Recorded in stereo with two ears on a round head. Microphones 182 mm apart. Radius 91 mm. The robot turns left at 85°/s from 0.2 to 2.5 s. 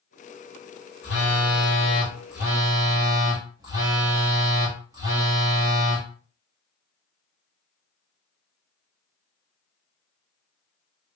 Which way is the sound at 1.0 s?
105° left.